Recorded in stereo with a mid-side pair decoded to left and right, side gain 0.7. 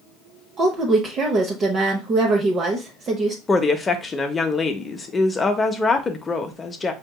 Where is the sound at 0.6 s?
35° right, 0.8 m.